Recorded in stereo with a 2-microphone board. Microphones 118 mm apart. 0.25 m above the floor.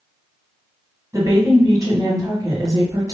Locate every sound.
1.1 s a woman speaking: 30° right (ahead or behind), 1.5 m